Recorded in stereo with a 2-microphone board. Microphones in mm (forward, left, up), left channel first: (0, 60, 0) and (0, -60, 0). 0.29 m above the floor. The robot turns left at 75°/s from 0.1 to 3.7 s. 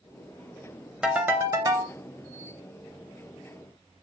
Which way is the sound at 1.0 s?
10° right.